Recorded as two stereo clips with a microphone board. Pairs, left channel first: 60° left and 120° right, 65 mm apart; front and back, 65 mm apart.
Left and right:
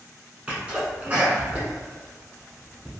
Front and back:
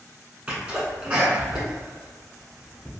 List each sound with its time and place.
0.5 s a sneeze: 145° right, 1.1 m